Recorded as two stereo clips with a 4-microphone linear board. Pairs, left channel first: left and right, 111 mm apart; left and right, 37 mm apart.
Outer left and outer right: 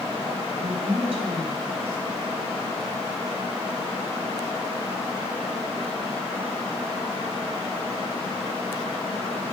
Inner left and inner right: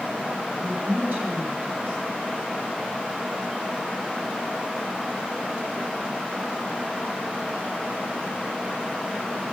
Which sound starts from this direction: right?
A woman speaking, at 0.6 s.